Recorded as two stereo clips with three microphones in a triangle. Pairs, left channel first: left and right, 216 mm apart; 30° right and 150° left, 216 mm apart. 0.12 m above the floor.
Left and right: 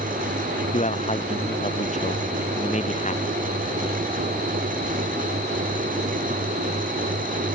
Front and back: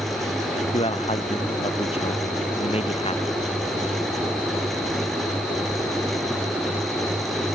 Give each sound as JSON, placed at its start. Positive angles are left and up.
{"t": 0.7, "sound": "a man speaking", "azimuth_deg": 35}